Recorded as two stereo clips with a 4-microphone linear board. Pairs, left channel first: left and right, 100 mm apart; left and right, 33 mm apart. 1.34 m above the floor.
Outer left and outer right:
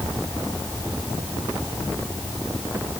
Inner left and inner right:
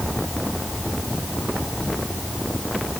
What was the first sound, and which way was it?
Only background noise.